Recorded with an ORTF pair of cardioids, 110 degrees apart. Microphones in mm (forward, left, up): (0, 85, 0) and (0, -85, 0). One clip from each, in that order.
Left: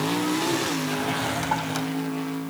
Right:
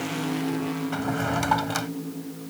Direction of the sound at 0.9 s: 20° right.